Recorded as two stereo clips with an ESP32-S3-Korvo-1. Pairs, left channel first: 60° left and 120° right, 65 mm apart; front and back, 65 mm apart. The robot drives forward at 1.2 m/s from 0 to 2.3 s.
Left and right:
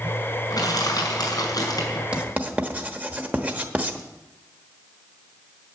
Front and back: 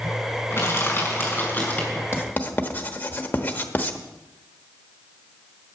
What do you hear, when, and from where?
0.5 s crushing: 50° left, 5.5 m; by 2.0 s 70° left, 4.5 m
2.1 s writing: 50° right, 1.2 m; by 4.0 s 55° right, 1.1 m